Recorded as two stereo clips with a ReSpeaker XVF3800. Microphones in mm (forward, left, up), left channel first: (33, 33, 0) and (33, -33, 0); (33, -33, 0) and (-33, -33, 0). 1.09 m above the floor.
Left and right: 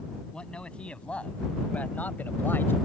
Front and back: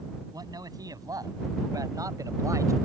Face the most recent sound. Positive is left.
turn(degrees=145)